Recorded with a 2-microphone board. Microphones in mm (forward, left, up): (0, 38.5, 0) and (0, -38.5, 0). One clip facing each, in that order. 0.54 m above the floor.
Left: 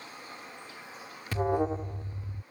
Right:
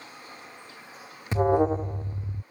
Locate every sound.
1.3 s an alarm: 25° right (ahead or behind)